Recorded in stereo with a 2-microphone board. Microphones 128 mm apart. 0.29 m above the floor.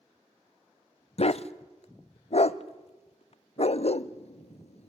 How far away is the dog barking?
About 0.6 m.